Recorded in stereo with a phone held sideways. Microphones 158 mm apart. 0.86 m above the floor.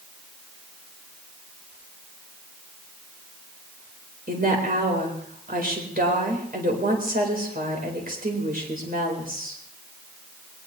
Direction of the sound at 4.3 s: 65° right (ahead or behind).